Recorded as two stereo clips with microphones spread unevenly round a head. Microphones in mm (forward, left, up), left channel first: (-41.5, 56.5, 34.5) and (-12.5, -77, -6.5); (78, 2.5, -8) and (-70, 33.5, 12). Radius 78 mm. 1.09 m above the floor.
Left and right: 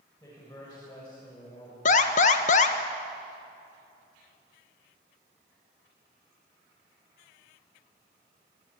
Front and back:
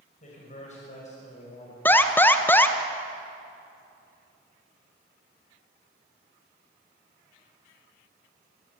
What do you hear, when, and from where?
0.2 s a man speaking: 30° left, 6.5 m; by 1.8 s 35° left, 5 m
1.9 s an alarm: 60° left, 1.3 m